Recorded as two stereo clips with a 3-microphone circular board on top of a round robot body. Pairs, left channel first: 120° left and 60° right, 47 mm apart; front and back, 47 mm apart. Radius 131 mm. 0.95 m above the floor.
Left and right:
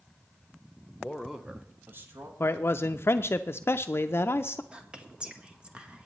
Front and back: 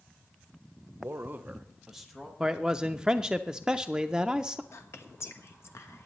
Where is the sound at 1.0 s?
175° right, 1.0 m; by 2.3 s 90° right, 2 m.